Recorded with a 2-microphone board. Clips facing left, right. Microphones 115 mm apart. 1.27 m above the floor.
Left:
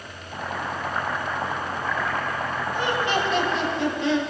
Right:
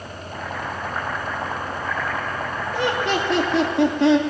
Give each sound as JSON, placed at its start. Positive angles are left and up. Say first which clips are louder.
{"t": 0.3, "sound": "boiling", "louder": "even", "side_deg": -5, "distance_m": 5.5}
{"t": 2.7, "sound": "laughter", "louder": "right 3 dB", "side_deg": -80, "distance_m": 3.0}